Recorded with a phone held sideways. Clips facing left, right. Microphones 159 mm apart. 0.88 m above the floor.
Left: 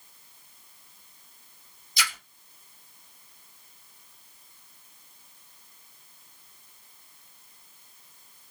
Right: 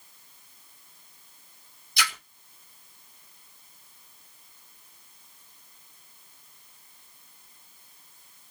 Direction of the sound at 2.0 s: 65° right (ahead or behind).